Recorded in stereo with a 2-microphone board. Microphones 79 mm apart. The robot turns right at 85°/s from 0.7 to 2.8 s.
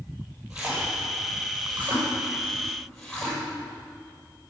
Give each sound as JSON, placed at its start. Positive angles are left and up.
{"t": 0.5, "sound": "a splash", "side_deg": -5, "distance_m": 5.5}